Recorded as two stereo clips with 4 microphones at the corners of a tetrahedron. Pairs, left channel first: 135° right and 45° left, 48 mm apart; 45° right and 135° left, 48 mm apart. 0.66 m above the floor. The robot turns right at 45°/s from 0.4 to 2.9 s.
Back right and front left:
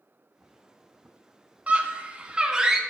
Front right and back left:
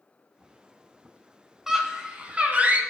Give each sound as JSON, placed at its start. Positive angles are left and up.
{"t": 1.7, "sound": "a scream", "azimuth_deg": 65, "distance_m": 0.9}